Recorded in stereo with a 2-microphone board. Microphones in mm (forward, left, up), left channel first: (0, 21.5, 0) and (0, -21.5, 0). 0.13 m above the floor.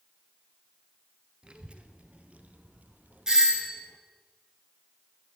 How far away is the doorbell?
About 2 m.